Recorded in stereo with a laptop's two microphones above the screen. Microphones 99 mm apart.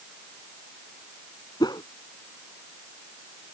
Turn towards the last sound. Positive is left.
turn(degrees=45)  # may be behind; listen again after turning